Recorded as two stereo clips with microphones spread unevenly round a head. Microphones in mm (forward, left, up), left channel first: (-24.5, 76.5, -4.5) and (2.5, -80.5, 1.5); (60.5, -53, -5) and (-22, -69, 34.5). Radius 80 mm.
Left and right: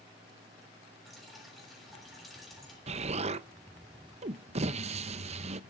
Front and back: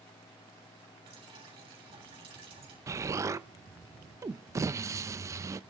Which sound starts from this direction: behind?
Dripping, at 1.1 s.